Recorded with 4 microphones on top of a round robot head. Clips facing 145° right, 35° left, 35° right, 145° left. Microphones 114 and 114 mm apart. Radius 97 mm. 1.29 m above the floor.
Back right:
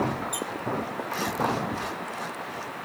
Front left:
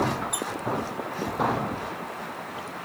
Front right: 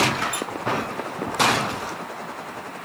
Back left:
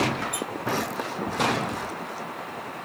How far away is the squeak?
About 1.4 m.